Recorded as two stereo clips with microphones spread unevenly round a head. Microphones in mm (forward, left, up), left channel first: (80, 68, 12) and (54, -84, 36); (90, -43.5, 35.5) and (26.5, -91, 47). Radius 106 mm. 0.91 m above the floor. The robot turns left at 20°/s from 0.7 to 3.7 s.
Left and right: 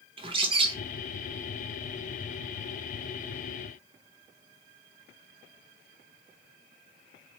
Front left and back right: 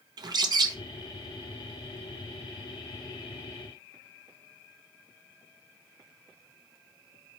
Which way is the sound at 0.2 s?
155° right.